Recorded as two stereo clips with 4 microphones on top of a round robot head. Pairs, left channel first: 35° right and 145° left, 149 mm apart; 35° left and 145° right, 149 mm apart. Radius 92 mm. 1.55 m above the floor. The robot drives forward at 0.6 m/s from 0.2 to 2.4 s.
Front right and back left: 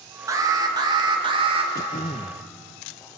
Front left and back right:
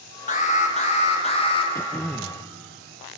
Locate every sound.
0.3 s an alarm: 75° left, 3 m; by 1.6 s 90° left, 3 m
1.7 s throat clearing: 35° right, 0.8 m; by 2.4 s 80° right, 0.7 m